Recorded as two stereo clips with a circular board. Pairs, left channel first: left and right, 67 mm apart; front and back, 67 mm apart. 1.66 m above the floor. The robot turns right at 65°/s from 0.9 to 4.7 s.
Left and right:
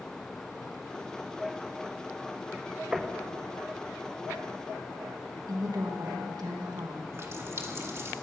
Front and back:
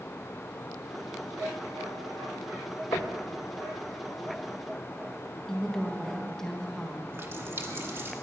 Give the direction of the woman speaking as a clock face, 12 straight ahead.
3 o'clock.